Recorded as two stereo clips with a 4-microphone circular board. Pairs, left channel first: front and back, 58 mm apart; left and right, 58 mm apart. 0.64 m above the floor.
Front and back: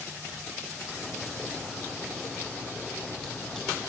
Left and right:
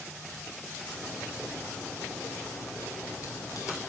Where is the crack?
80° left, 3 m.